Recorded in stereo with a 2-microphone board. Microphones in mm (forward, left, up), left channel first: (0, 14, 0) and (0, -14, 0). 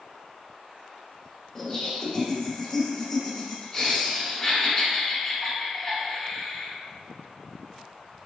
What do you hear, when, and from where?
1.6 s laughter: 10° left (ahead or behind), 1.4 m